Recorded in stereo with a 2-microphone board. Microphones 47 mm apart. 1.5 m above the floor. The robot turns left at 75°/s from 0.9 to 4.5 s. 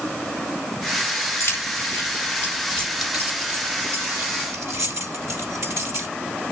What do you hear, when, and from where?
1.4 s keys jangling: 60° left (ahead or behind), 3 m; by 6.1 s 65° right (ahead or behind), 3 m